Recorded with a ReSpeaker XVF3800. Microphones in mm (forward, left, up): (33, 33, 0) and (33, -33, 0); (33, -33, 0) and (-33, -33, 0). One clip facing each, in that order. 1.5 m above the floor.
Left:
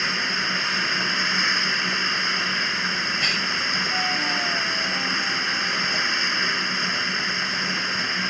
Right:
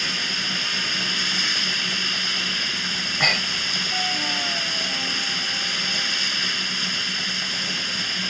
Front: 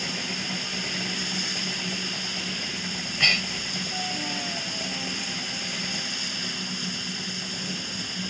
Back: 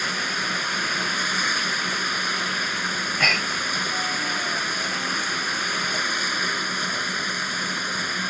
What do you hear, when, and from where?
0.0 s running water: 150° left
3.0 s breathing: 125° right